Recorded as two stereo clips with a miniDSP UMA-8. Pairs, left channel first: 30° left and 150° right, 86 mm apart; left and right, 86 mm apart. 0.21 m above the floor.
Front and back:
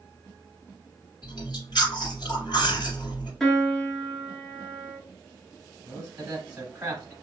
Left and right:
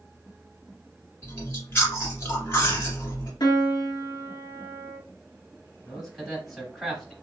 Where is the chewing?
35° left, 1.9 m.